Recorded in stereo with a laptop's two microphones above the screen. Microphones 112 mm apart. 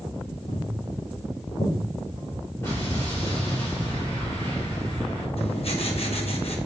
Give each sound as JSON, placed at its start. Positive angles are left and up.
{"t": 0.5, "sound": "footsteps", "side_deg": 70, "distance_m": 3.5}
{"t": 2.6, "sound": "an explosion", "side_deg": 25, "distance_m": 3.0}
{"t": 5.4, "sound": "writing", "side_deg": 60, "distance_m": 1.2}